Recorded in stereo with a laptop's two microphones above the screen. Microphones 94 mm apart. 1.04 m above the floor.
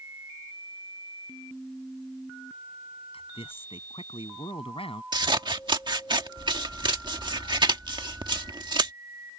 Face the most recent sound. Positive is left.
turn(degrees=-55)  # may be behind; listen again after turning